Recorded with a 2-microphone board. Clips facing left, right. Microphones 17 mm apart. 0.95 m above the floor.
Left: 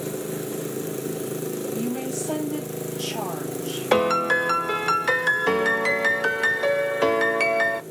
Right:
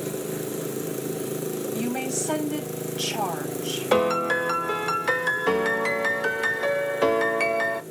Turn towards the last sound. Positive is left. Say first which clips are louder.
# left 2 dB
turn(degrees=10)  # may be behind; listen again after turning